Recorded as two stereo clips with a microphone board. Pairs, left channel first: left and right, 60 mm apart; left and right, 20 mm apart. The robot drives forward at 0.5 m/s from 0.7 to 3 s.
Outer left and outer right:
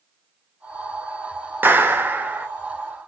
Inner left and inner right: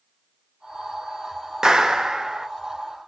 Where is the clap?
35° right (ahead or behind), 1.2 m; by 2.5 s 30° right (ahead or behind), 1.3 m.